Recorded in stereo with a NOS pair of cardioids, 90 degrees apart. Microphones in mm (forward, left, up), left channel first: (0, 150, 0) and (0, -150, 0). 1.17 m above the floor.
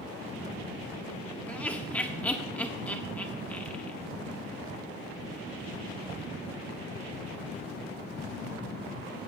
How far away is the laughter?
About 1.5 m.